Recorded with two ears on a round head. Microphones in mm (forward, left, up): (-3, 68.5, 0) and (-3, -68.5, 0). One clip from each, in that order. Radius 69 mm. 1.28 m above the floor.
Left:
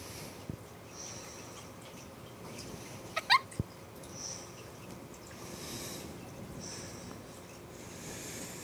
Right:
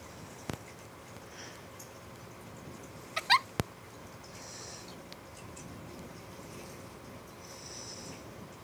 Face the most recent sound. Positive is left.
turn(degrees=-20)  # may be behind; listen again after turning